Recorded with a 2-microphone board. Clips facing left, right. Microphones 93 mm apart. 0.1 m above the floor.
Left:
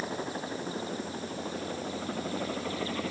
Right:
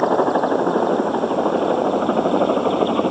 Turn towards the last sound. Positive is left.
turn(degrees=-55)  # may be behind; listen again after turning